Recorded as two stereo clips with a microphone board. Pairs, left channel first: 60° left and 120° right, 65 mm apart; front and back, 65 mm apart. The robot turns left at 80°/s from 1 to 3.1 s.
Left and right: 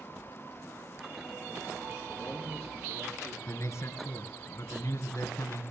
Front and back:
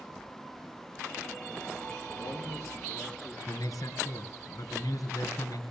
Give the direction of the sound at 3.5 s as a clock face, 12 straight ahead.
11 o'clock.